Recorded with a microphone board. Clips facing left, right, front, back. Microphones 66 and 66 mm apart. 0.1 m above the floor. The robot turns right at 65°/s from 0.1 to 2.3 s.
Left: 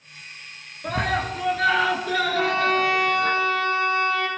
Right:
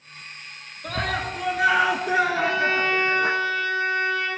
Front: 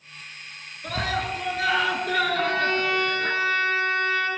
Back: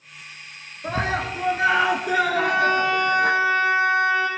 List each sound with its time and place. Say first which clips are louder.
0.8 s a scream: left 3 dB, back 3 dB; 155° left, 1.2 m; by 3.3 s 110° right, 1.2 m
2.3 s a violin: left 1 dB, back 4 dB; 105° left, 4 m